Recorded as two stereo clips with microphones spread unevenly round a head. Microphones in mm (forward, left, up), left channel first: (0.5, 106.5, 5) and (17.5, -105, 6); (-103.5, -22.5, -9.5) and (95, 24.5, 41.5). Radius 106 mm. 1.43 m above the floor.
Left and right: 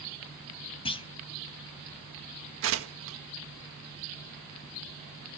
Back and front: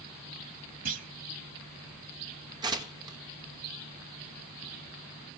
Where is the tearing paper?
55° right, 1.7 m.